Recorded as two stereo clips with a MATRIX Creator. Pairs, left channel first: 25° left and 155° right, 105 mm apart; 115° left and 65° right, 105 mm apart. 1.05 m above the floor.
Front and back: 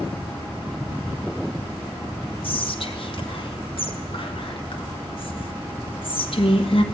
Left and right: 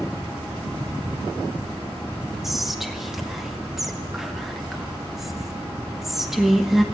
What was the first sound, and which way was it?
Whispering, 20° left.